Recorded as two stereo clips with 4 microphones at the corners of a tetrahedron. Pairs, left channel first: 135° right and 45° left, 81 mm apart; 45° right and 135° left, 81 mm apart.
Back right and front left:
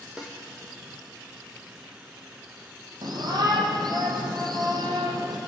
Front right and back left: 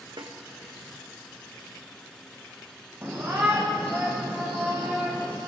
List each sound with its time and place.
0.2 s a snare drum: 125° left, 3 m
3.0 s a shout: 70° left, 5 m